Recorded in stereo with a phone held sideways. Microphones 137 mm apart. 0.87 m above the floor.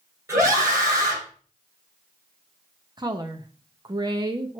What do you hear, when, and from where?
0.3 s a scream: 20° right (ahead or behind), 3.5 m
3.0 s a woman speaking: 30° right (ahead or behind), 0.7 m